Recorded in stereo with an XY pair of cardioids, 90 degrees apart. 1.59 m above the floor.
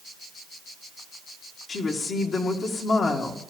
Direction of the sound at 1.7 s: 55° left.